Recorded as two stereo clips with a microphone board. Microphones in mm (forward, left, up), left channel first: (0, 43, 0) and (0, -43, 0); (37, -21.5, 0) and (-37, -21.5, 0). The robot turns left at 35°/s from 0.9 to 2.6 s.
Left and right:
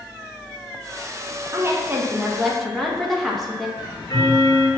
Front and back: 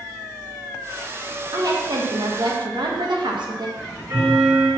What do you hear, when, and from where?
1.5 s a woman speaking: 145° right, 1.8 m; by 3.7 s 175° left, 1.8 m
3.8 s ticking: 130° left, 3.5 m